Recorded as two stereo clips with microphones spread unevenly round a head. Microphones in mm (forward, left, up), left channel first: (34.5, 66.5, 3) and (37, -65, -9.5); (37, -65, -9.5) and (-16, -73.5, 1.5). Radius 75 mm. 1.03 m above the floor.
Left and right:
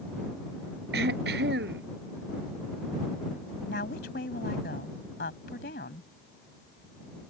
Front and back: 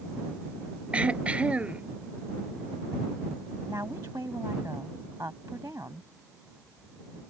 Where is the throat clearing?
105° right.